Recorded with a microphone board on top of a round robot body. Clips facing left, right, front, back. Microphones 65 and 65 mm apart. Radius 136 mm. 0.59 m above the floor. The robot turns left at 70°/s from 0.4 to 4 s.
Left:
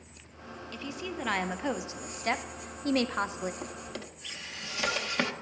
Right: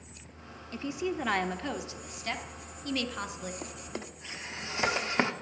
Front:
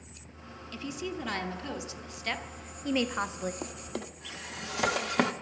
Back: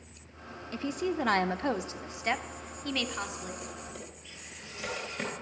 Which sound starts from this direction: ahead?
A drawer, at 3.6 s.